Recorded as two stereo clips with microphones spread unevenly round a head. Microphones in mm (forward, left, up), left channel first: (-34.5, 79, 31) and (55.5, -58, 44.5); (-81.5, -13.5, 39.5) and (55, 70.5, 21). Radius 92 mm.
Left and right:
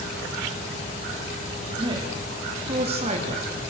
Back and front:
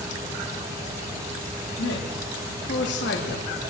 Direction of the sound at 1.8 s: 125° right.